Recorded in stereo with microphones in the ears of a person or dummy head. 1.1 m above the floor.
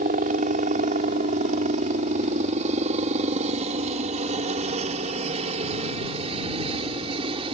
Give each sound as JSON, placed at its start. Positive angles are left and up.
{"t": 0.0, "sound": "a helicopter", "side_deg": -45}